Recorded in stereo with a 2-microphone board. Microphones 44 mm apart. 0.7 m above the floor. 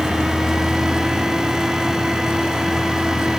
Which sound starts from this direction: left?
A vehicle, at 0.0 s.